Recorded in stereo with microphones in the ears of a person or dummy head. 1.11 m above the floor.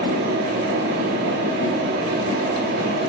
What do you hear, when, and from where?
0.0 s a fan: 50° right (ahead or behind), 1.2 m